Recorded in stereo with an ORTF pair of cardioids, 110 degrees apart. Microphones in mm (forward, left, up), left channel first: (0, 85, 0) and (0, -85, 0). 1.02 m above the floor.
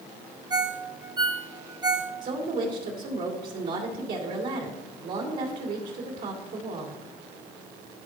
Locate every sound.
0.5 s a ringtone: 25° right, 0.9 m
2.2 s a woman speaking: 60° right, 2.5 m